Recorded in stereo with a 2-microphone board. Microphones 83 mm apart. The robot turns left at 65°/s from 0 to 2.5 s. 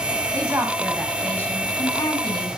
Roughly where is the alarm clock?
I don't hear an alarm clock.